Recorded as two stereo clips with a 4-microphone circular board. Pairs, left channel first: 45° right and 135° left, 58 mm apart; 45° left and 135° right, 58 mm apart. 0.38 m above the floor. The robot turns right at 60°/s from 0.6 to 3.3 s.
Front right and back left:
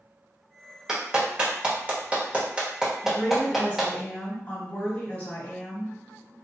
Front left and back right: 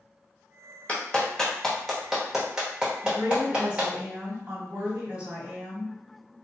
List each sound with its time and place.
0.9 s a clap: 70° left, 1.0 m; by 3.9 s 145° right, 1.0 m
3.0 s a woman speaking: 100° right, 1.7 m; by 5.9 s 85° right, 1.7 m